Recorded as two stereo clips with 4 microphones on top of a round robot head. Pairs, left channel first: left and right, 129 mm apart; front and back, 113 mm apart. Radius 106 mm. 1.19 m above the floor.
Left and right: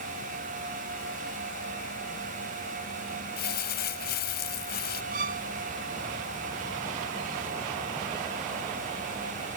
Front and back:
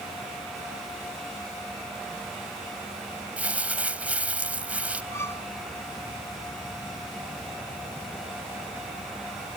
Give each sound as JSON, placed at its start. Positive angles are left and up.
{"t": 3.4, "sound": "crumpling", "azimuth_deg": 100}
{"t": 5.1, "sound": "a violin", "azimuth_deg": -75}